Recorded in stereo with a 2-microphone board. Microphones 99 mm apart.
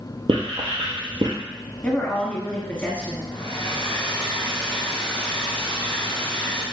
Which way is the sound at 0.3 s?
60° right (ahead or behind).